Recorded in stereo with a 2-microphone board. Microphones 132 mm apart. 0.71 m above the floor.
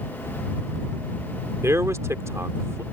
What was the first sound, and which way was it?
A man speaking, 20° right (ahead or behind).